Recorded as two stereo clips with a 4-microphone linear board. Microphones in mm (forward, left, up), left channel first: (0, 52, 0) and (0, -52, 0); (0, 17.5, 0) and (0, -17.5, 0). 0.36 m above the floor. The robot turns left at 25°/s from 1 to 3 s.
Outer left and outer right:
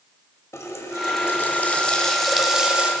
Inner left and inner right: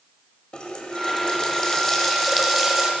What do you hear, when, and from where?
0.5 s a running tap: 35° left, 1.0 m; by 2.9 s 15° right, 1.0 m